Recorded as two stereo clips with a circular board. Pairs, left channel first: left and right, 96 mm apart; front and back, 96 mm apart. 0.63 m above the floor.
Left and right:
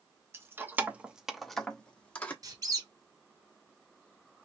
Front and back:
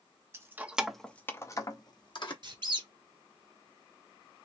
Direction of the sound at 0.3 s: 140° right.